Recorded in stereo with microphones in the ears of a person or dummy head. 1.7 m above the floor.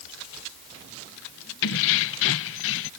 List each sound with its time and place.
1.6 s keys jangling: 60° left (ahead or behind); by 2.9 s 65° left (ahead or behind)